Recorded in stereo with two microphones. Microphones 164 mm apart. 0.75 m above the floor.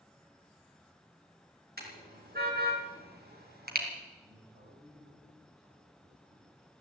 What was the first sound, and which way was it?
A car horn, 70° right (ahead or behind).